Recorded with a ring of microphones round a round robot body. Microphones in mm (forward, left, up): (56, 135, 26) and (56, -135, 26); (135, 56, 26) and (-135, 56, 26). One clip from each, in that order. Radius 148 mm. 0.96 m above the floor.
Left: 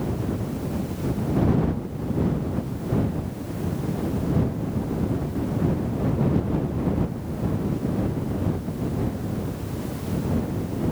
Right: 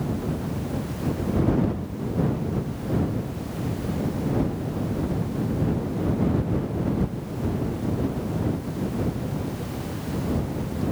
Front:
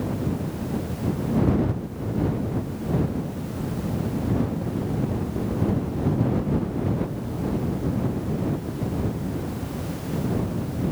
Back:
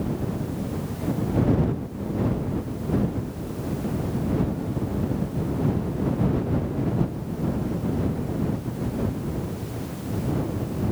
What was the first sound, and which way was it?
Only background noise.